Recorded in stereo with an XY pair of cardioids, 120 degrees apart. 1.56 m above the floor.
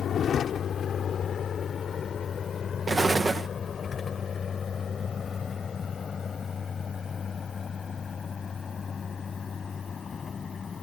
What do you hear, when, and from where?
0.0 s a vehicle: 45° left; by 10.8 s 30° left
2.9 s an explosion: 25° right